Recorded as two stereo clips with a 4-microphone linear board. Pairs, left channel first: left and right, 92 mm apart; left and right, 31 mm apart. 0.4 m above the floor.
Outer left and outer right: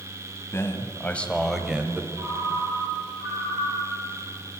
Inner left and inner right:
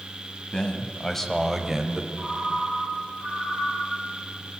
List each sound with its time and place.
0.5 s a man speaking: 30° left (ahead or behind), 2.5 m; by 2.1 s 20° right (ahead or behind), 1.6 m
2.2 s a ringtone: 15° right (ahead or behind), 4.5 m